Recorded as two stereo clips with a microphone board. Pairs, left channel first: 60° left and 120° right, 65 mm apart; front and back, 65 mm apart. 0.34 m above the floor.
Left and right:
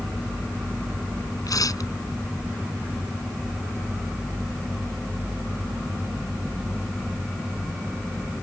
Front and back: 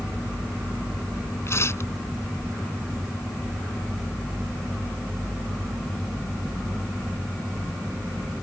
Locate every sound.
1.5 s tearing paper: 45° left